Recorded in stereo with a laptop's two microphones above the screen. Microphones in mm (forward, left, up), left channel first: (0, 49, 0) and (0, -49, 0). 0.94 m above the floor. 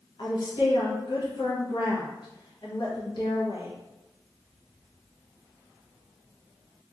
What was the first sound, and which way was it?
A woman speaking, 55° left (ahead or behind).